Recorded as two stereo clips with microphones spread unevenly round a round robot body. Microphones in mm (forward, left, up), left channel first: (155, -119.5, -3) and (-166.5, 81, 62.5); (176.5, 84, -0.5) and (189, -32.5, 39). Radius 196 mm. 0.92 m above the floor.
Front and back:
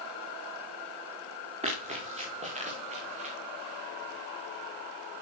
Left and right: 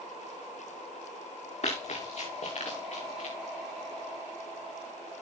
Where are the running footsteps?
75° left, 5.5 m.